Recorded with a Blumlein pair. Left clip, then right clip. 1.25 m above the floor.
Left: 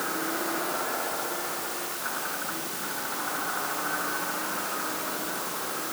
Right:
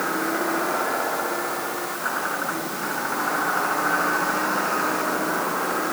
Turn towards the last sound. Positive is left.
turn(degrees=-60)